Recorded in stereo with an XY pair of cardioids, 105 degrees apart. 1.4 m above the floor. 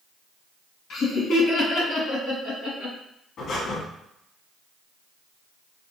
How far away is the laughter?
About 1.9 m.